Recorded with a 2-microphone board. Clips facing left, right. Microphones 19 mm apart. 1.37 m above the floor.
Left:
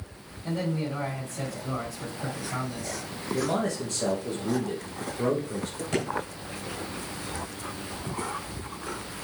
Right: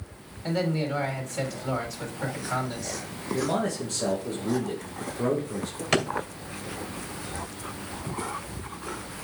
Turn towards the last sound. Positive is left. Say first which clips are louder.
# right 5 dB
turn(degrees=-70)  # may be behind; listen again after turning